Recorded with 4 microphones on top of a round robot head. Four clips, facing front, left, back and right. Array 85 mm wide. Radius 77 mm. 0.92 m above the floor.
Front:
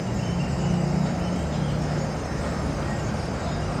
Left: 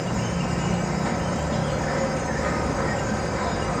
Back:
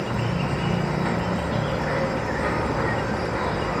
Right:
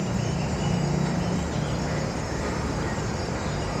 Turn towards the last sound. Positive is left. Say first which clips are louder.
# left 2 dB, back 2 dB
turn(degrees=155)